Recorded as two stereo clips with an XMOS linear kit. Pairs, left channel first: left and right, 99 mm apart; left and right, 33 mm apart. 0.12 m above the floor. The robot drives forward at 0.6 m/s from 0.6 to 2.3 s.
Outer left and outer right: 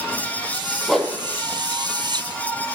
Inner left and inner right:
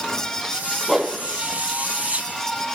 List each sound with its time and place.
0.9 s a whoosh: 5° left (ahead or behind), 2 m